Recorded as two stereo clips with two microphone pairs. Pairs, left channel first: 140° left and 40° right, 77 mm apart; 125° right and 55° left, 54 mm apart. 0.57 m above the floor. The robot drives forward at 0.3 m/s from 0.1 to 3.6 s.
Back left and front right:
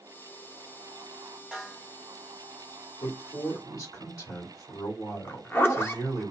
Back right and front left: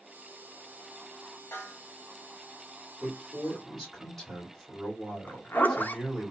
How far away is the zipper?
About 0.5 m.